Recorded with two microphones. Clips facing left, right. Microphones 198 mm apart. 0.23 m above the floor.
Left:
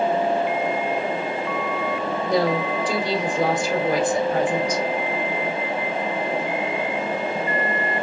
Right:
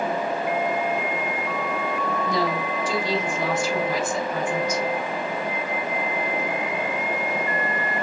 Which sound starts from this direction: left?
A woman speaking, at 2.2 s.